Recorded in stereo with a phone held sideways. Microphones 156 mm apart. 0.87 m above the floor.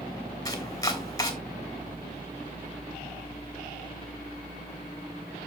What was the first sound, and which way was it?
Chopping, 20° left (ahead or behind).